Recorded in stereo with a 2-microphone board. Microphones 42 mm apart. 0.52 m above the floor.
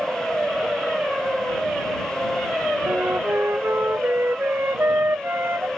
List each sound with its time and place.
2.9 s a flute: 60° right (ahead or behind)